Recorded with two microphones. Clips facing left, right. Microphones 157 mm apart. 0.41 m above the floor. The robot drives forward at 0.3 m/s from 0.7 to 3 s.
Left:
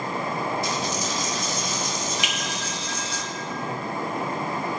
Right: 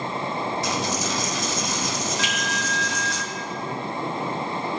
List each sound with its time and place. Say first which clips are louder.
0.6 s a dropped coin: right 1 dB; 75° right (ahead or behind), 1.2 m; by 3.2 s 70° right (ahead or behind), 1.2 m
2.2 s a finger snap: right 2 dB; 15° left (ahead or behind), 2 m